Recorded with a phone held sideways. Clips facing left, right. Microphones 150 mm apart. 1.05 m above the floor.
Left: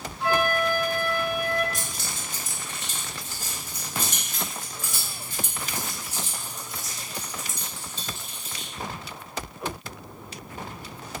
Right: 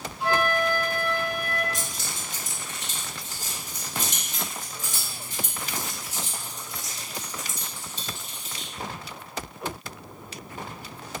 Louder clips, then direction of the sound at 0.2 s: Even; 15° right (ahead or behind).